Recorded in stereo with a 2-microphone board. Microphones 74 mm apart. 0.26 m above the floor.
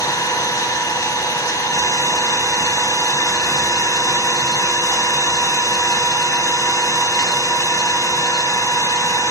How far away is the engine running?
About 0.8 m.